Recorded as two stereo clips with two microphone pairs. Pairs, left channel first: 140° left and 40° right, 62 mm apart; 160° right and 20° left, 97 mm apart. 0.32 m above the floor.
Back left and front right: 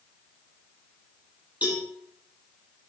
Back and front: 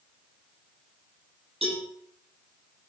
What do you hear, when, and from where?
1.6 s a cowbell: 25° left, 9 m